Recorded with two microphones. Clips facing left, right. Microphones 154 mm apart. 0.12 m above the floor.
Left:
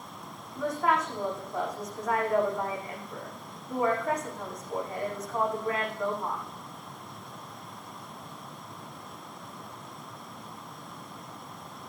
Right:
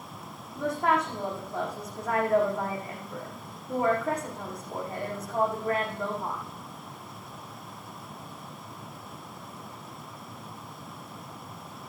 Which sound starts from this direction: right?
A woman speaking, at 0.6 s.